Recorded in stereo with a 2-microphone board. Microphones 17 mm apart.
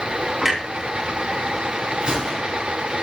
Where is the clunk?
30° right (ahead or behind), 3.5 m.